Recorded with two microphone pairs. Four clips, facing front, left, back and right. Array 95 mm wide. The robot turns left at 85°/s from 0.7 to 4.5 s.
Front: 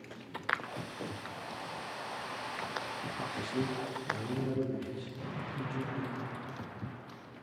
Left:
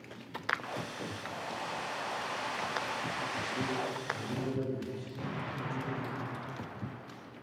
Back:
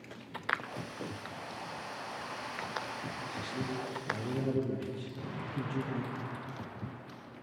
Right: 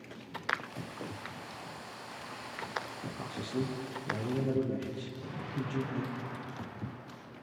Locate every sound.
3.2 s a man speaking: 25° right, 5.5 m; by 6.2 s 140° right, 5.5 m
5.2 s an explosion: 110° left, 9.5 m